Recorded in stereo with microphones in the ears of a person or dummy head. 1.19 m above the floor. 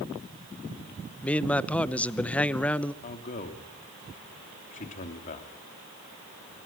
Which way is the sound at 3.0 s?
40° left (ahead or behind).